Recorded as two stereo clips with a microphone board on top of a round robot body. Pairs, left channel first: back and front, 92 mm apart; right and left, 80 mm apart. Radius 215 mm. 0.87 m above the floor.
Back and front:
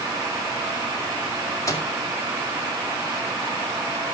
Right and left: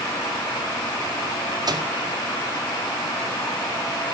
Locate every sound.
1.7 s a microwave: 125° left, 2.0 m